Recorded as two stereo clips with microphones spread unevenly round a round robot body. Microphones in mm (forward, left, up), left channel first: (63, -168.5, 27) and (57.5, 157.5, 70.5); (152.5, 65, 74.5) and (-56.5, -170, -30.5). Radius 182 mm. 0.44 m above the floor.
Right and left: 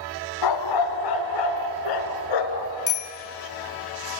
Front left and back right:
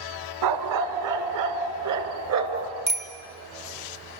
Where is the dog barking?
115° right, 1.6 m; by 2.7 s 95° right, 2.5 m.